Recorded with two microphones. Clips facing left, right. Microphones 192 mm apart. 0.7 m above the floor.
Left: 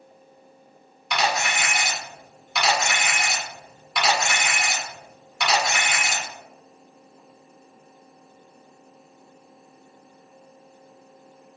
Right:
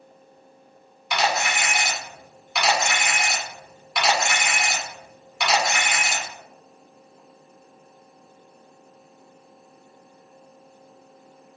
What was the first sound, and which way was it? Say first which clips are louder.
A camera shutter: right 1 dB; 5° right (ahead or behind).